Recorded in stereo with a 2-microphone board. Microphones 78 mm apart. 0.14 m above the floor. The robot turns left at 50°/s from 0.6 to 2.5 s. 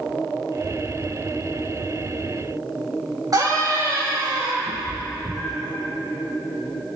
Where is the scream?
50° right (ahead or behind), 6.5 m.